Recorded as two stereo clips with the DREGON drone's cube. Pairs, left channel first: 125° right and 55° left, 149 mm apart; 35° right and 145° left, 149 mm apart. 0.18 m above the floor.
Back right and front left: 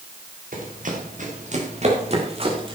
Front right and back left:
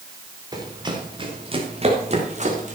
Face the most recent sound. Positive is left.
turn(degrees=110)